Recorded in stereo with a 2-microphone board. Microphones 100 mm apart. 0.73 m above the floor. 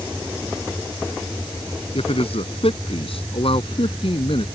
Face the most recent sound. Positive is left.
turn(degrees=65)  # may be behind; listen again after turning